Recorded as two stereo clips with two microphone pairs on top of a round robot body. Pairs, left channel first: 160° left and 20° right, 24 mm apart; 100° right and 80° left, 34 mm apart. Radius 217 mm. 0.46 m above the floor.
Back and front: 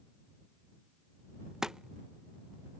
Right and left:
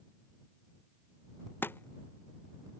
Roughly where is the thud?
Right.